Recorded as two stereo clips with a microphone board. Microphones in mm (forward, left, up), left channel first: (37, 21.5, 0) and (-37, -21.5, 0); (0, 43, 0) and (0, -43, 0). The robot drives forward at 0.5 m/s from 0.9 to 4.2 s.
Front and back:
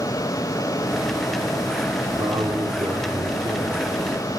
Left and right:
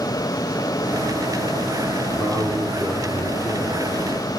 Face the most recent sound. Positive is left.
turn(degrees=-150)